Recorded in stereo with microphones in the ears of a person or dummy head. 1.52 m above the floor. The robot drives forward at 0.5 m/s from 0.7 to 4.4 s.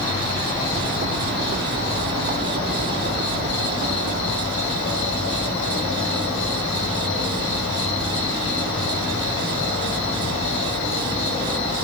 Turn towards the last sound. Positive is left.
turn(degrees=70)  # may be behind; listen again after turning